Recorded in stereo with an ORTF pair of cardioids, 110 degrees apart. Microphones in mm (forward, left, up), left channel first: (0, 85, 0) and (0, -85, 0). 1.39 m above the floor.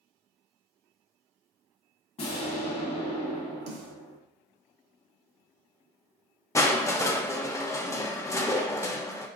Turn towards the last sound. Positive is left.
turn(degrees=20)